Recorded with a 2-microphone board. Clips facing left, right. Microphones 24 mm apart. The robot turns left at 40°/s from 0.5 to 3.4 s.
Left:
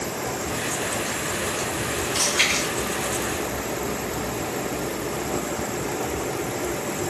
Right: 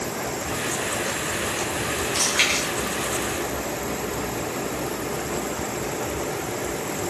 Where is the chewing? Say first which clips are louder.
Even; 10° right (ahead or behind), 1.8 m; by 2.6 s 30° right (ahead or behind), 1.8 m.